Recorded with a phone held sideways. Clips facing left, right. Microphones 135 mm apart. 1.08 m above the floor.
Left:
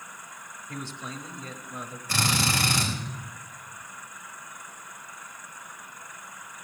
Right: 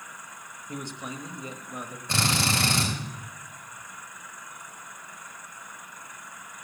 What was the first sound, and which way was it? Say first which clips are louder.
A man speaking: right 2 dB; 15° right (ahead or behind).